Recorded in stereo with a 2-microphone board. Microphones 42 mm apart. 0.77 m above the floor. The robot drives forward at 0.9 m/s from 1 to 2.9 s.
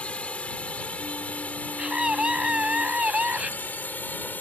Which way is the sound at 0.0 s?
30° left (ahead or behind).